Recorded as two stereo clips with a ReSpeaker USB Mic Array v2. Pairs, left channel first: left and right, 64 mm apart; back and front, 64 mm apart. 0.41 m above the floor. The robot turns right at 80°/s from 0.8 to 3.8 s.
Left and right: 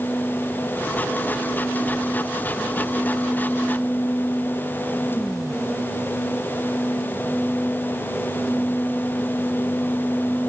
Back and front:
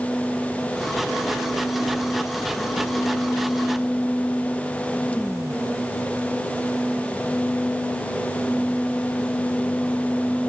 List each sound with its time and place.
Only background noise.